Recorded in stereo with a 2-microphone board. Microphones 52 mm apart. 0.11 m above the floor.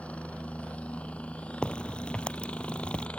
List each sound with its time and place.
0.0 s a helicopter: 25° left (ahead or behind); by 3.2 s 20° left (ahead or behind)
1.6 s a crack: 20° left (ahead or behind)